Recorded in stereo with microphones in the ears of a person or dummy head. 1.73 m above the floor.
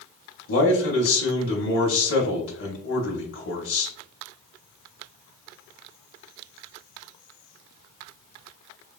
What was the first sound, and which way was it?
A man speaking, 65° left (ahead or behind).